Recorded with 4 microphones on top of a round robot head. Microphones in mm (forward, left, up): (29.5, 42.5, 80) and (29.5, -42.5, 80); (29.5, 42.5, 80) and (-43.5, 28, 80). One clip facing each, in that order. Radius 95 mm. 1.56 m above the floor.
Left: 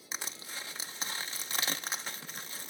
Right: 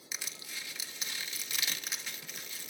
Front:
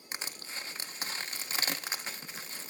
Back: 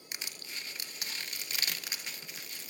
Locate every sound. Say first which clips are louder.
0.1 s crushing: left 4 dB, front 4 dB; 55° left, 0.7 m